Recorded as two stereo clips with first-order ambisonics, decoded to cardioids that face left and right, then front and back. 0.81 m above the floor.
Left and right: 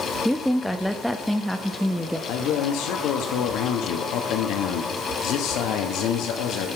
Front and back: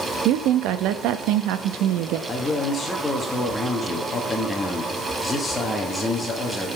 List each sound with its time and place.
0.2 s a woman speaking: straight behind, 0.5 m
2.3 s a man speaking: 75° left, 1.2 m